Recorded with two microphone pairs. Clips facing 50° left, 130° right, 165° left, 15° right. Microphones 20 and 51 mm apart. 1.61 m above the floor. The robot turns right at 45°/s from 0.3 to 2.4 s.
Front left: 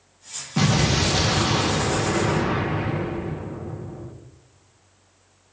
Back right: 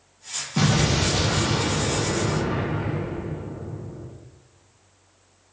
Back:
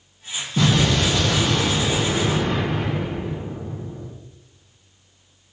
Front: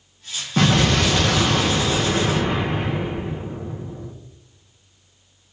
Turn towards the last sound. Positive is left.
turn(degrees=45)